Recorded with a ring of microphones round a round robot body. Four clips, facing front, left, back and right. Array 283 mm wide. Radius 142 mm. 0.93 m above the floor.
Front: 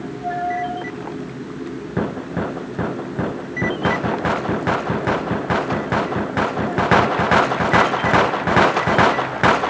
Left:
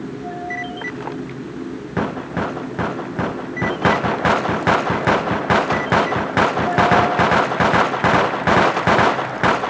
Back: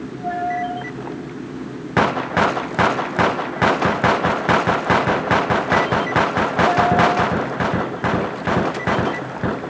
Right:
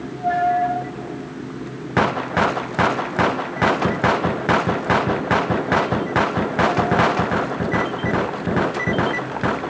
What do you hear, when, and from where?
Only background noise.